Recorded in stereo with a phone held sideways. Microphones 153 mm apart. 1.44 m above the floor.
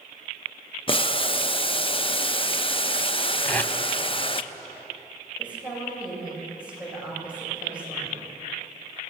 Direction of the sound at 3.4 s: 10° left (ahead or behind).